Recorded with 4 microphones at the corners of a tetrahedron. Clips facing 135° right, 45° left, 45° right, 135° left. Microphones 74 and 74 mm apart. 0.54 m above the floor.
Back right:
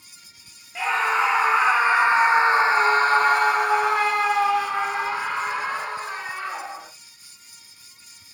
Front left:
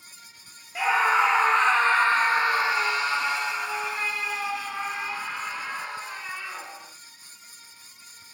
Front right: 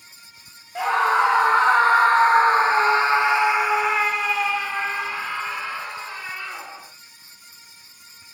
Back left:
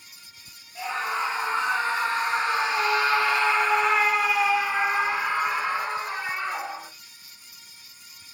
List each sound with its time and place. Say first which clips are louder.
0.8 s a scream: even, front right 10 dB; 40° right, 1.6 m; by 6.9 s 170° right, 2.5 m